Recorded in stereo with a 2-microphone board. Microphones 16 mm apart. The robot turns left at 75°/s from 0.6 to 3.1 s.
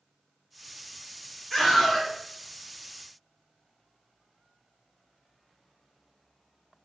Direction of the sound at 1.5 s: 135° left.